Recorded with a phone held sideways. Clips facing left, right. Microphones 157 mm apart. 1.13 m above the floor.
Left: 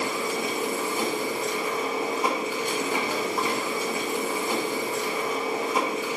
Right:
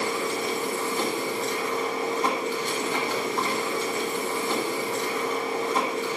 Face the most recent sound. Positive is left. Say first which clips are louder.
# even
turn(degrees=10)  # may be behind; listen again after turning